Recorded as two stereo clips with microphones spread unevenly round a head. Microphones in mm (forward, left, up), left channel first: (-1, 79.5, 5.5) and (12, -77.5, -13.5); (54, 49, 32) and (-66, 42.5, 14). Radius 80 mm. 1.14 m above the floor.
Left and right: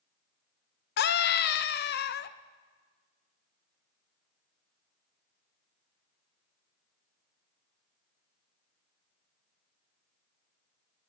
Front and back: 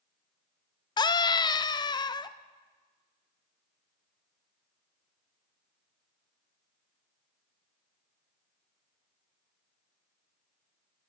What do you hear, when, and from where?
1.0 s a scream: 60° left, 0.6 m